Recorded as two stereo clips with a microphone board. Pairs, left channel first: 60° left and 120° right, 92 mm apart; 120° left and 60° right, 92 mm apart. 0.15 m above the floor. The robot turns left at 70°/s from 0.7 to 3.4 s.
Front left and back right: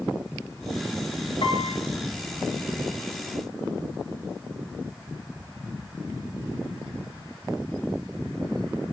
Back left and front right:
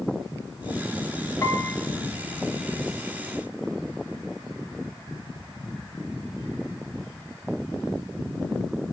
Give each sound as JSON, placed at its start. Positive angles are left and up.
{"t": 1.4, "sound": "a piano", "azimuth_deg": 70, "distance_m": 1.7}